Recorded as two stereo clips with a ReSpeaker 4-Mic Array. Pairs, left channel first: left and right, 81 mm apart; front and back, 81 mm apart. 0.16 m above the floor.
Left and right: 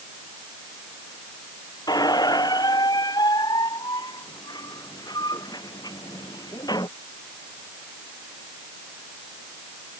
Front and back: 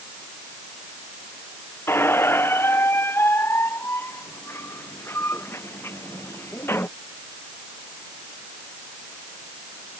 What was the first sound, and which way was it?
A squeak, 60° left.